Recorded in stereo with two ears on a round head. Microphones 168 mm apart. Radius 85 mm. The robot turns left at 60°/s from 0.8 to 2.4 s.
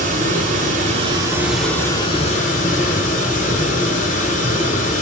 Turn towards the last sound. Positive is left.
turn(degrees=130)